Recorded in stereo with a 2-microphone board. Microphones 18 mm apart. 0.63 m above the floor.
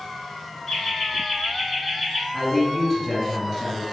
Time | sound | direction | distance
0.7 | laughter | 30° left (ahead or behind) | 1.1 m
2.3 | a man speaking | 20° left (ahead or behind) | 1.0 m